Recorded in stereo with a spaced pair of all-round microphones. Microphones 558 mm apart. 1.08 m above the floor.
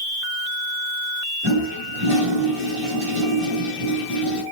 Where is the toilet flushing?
55° right (ahead or behind), 5.5 m.